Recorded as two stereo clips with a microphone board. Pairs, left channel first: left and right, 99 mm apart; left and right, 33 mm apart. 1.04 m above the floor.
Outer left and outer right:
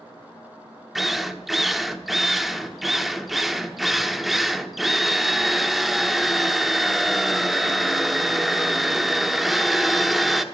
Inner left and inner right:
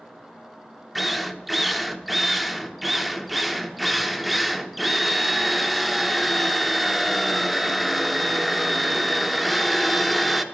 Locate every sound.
0.9 s a drill: centre (ahead or behind), 1.0 m